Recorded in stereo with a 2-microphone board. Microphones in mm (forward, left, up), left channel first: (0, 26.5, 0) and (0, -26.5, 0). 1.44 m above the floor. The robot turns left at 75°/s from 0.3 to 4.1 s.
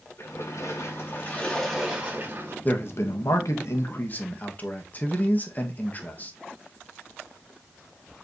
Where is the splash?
105° left, 4 m; by 2.5 s 65° right, 4 m.